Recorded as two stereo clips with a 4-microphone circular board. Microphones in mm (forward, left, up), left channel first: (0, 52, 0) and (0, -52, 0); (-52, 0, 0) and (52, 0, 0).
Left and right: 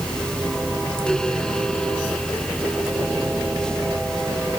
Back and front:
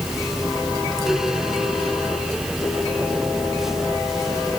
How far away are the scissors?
No scissors in this recording.